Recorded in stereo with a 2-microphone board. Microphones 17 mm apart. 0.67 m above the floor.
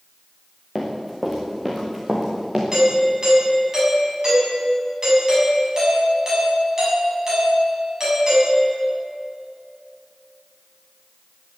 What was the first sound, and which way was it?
Running footsteps, 10° right (ahead or behind).